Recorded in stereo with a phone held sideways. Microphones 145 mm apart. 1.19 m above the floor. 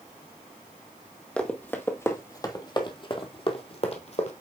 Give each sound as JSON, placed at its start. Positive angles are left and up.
{"t": 1.4, "sound": "running footsteps", "side_deg": 10, "distance_m": 1.5}